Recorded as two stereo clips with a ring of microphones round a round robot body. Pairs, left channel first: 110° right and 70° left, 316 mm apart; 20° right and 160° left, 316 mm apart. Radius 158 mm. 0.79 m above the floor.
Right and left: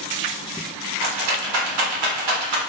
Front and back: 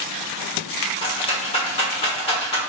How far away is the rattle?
About 1.4 m.